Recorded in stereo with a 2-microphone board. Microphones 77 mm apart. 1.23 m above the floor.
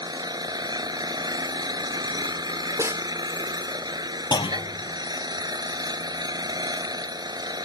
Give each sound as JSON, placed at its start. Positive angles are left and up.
{"t": 0.0, "sound": "an engine running", "side_deg": -65}
{"t": 2.8, "sound": "a snare drum", "side_deg": -40}
{"t": 4.3, "sound": "a clunk", "side_deg": 85}